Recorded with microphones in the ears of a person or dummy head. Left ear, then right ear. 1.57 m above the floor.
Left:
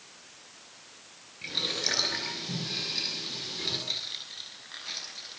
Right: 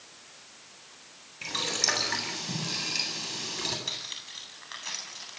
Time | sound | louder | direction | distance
1.4 | boiling | right 1 dB | 45° right (ahead or behind) | 8.5 m
3.9 | cutlery clinking | left 2 dB | 40° right (ahead or behind) | 8 m